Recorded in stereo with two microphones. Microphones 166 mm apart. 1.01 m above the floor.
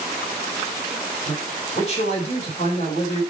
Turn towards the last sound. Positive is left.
turn(degrees=45)  # may be behind; listen again after turning